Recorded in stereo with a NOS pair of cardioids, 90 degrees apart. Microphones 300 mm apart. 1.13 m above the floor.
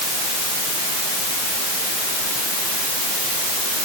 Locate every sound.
Only background noise.